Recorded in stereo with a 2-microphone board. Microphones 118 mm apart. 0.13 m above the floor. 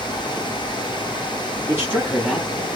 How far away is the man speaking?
About 2.0 m.